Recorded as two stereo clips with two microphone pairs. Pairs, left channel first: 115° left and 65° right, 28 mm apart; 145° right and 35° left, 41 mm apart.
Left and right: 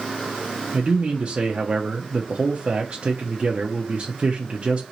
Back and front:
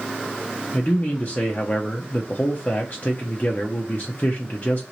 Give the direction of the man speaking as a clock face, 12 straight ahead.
4 o'clock.